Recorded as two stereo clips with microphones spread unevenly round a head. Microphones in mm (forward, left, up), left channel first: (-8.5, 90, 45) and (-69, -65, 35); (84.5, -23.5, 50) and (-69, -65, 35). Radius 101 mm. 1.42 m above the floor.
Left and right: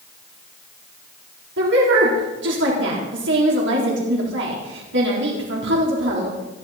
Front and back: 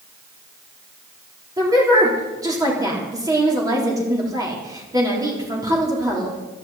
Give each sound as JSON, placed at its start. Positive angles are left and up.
{"t": 1.6, "sound": "a woman speaking", "azimuth_deg": -95, "distance_m": 4.0}